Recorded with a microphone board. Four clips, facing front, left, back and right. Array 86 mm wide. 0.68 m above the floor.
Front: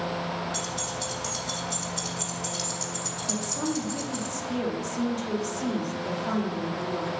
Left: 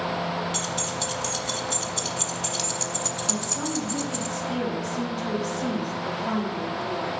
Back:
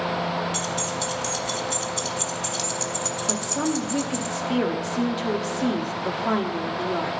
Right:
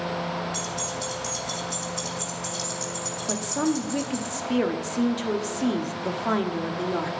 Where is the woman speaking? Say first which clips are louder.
Right 8 dB, back 4 dB; 130° right, 1.0 m.